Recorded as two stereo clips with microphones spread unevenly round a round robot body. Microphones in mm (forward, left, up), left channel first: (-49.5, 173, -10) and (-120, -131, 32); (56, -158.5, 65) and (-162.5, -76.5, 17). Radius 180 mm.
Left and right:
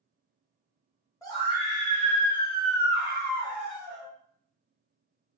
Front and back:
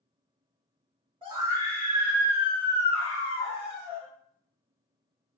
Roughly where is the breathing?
No breathing in this recording.